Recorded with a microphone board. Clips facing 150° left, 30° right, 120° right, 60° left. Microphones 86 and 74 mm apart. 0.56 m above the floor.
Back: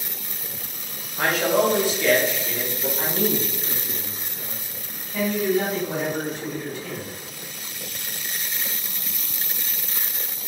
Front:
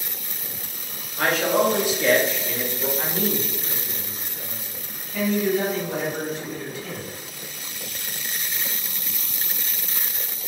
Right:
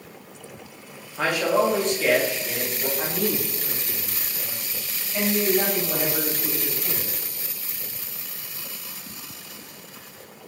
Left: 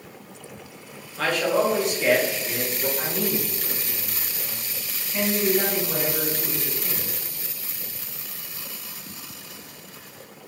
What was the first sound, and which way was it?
A man speaking, 145° right.